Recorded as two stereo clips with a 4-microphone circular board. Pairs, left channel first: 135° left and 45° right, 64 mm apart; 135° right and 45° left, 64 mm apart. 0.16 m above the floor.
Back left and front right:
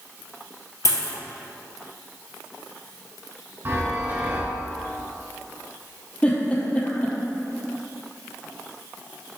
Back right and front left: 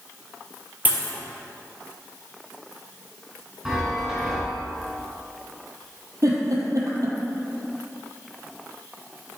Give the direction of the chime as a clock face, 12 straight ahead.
1 o'clock.